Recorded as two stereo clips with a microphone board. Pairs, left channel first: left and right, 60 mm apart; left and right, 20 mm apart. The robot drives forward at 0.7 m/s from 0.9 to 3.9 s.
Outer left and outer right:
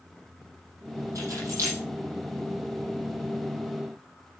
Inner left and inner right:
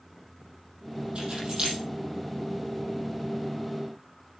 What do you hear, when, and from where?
1.1 s keys jangling: 55° right (ahead or behind), 6.5 m; by 1.8 s 50° right (ahead or behind), 7 m